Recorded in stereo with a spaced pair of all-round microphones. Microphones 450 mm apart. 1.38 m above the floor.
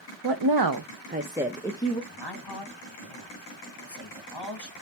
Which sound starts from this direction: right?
A woman speaking, at 0.2 s.